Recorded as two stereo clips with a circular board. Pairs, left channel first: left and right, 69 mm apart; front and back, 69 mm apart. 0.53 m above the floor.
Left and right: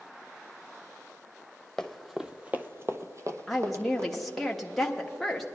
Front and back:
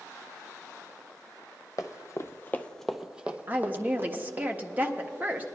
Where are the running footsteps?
5° left, 0.9 m; by 4.5 s 130° right, 1.6 m.